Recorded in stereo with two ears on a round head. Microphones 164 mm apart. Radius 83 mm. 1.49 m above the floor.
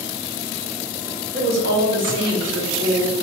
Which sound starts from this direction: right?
A woman speaking, at 1.3 s.